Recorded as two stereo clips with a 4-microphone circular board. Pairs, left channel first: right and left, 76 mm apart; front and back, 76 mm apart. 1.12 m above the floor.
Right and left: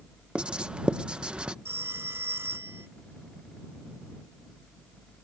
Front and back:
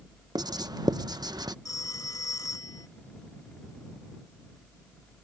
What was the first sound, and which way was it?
Writing, 165° left.